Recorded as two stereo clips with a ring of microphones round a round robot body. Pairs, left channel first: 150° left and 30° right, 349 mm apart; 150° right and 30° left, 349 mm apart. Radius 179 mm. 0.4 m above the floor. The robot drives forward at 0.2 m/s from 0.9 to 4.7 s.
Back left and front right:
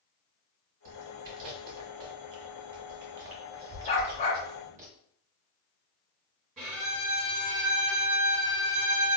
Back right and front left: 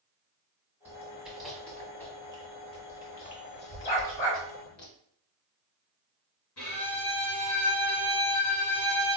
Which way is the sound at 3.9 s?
135° right.